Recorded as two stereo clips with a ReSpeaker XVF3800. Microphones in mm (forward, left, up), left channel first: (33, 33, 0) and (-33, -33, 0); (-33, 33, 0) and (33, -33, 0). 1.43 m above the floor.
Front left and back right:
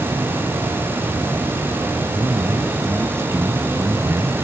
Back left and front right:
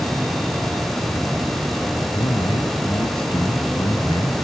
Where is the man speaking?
165° left.